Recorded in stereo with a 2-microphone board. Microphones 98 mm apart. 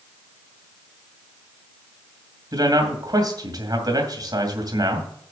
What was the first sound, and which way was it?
A man speaking, 40° right (ahead or behind).